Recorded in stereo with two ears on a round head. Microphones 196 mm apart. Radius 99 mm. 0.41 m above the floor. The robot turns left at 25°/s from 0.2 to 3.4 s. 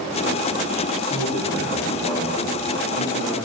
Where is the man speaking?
30° left, 3.5 m; by 3.5 s 30° right, 3.5 m.